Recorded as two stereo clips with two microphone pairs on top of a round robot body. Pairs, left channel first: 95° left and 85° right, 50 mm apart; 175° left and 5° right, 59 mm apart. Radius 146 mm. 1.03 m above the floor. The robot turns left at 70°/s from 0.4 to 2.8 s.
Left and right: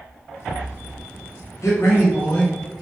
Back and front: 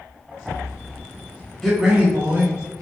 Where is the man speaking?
90° left, 1.4 m; by 2.8 s 10° left, 1.4 m.